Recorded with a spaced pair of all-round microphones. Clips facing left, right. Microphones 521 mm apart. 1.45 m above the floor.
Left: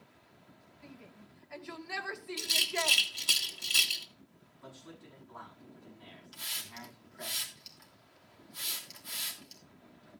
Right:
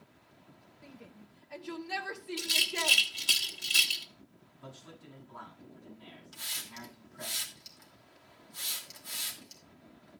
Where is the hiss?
65° right (ahead or behind), 2.5 m.